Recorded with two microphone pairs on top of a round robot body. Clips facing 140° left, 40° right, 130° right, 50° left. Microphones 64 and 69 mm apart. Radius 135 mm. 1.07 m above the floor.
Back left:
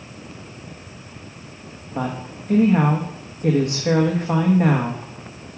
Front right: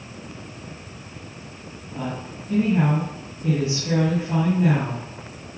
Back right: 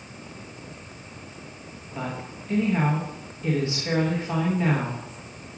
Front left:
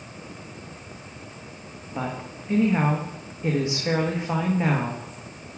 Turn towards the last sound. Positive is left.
turn(degrees=115)